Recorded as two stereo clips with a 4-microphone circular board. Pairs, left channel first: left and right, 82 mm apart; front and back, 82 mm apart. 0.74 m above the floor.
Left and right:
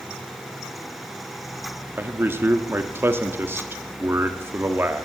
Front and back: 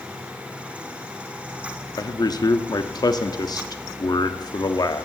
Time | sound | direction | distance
2.0 | a man speaking | 30° right | 1.0 m